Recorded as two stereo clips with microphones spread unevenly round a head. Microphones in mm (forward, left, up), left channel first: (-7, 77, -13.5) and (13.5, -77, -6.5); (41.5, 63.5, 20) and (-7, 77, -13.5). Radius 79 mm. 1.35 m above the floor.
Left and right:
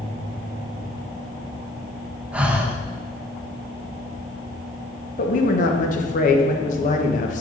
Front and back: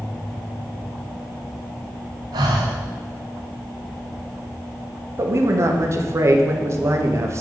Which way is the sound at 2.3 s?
165° right.